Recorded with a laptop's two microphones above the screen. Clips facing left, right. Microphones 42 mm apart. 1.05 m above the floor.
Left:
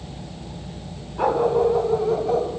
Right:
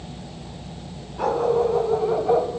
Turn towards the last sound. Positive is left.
turn(degrees=-25)  # may be behind; listen again after turning